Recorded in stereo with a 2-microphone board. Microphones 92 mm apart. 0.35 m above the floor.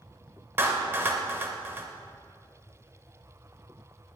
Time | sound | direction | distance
0.6 | a clap | 25° right (ahead or behind) | 1.1 m